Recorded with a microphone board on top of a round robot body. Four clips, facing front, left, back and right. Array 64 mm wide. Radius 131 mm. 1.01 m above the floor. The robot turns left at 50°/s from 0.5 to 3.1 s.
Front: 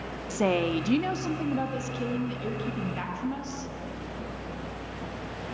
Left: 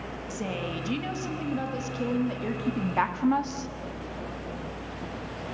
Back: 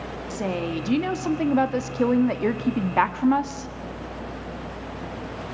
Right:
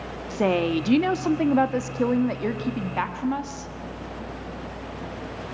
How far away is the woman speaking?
About 1.8 m.